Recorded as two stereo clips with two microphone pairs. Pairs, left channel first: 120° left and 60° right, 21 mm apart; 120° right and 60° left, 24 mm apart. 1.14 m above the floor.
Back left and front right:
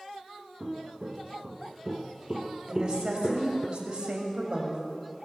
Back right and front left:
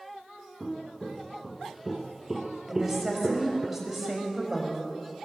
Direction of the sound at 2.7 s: 20° right.